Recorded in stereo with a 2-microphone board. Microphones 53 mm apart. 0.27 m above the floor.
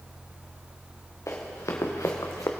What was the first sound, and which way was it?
Running footsteps, 65° left (ahead or behind).